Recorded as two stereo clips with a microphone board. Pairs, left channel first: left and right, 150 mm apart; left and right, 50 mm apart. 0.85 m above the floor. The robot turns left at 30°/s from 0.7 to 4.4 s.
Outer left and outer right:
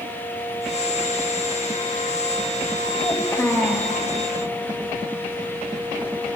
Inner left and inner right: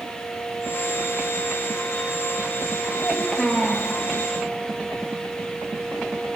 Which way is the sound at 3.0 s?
25° left (ahead or behind).